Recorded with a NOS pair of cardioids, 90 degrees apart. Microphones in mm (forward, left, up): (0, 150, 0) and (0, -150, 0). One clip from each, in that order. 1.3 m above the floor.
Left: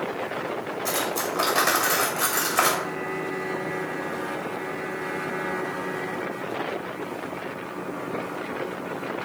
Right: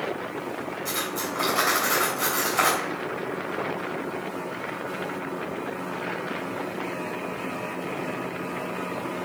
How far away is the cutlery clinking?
About 3.5 m.